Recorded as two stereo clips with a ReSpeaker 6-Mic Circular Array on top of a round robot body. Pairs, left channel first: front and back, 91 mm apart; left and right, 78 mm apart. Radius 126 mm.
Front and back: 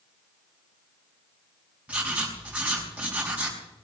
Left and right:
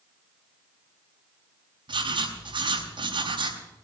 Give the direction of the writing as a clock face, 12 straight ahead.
3 o'clock.